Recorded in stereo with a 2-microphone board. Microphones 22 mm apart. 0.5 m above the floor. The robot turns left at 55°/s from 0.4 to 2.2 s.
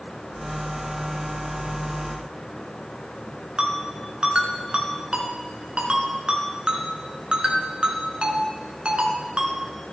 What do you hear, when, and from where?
3.6 s a ringtone: 45° right (ahead or behind), 2 m